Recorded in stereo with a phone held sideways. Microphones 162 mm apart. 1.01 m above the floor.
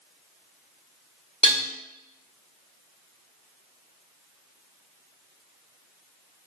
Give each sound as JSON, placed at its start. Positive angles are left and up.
{"t": 1.4, "sound": "dishes clattering", "side_deg": -40, "distance_m": 1.1}